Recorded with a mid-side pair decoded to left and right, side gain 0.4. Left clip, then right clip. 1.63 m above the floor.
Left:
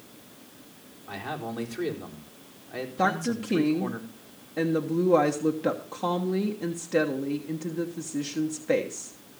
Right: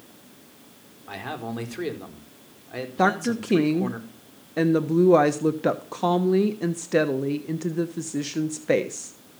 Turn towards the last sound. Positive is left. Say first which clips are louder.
# right 4 dB
turn(degrees=-45)